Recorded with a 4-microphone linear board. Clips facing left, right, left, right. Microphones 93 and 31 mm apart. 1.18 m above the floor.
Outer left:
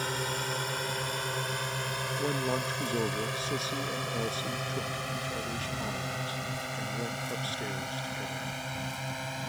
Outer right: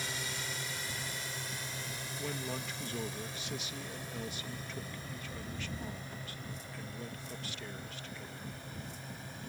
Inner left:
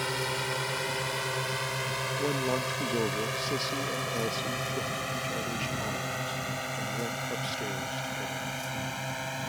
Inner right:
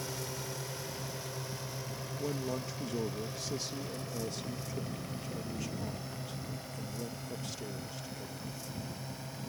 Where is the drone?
50° left (ahead or behind); by 9.5 s 80° left.